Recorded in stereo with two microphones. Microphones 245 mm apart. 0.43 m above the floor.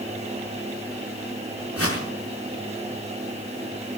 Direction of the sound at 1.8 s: 70° left (ahead or behind).